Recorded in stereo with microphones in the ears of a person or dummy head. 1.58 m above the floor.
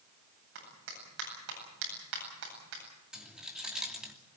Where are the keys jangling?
5° right (ahead or behind), 3 m.